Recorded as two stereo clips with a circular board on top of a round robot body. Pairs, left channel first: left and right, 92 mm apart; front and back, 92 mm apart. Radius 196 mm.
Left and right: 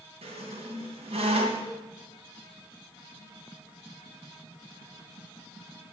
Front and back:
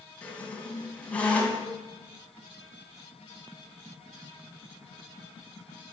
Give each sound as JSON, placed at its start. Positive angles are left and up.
{"t": 0.2, "sound": "a squeak", "azimuth_deg": -75, "distance_m": 2.5}